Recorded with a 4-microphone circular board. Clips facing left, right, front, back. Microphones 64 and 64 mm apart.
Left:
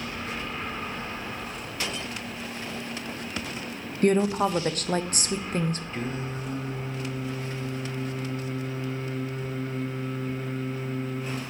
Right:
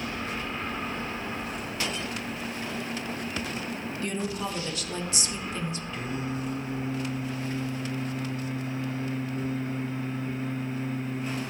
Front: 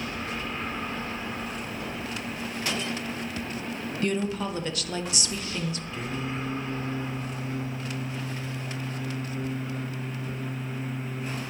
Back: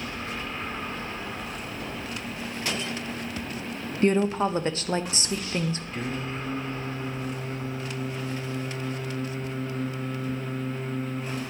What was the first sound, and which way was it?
A woman speaking, 125° left.